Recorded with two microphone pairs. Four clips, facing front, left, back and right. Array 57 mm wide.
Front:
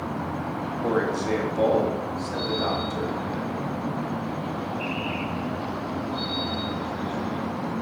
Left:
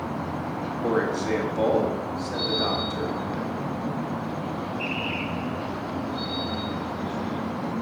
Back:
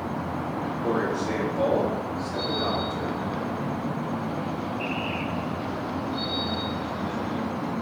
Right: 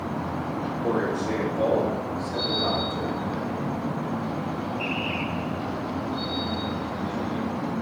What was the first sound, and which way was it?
A man speaking, 55° left.